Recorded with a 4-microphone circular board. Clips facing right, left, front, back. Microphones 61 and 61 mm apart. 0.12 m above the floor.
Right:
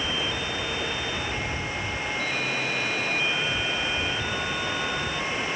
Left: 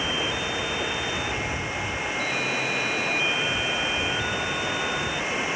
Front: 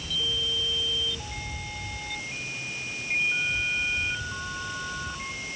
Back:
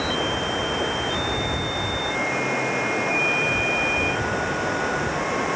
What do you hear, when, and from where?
0.0 s running water: 170° left